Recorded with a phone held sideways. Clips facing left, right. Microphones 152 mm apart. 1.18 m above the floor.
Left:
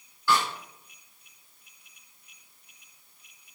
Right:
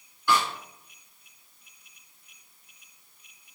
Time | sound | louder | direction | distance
0.3 | a snare drum | right 1 dB | 15° right (ahead or behind) | 1.8 m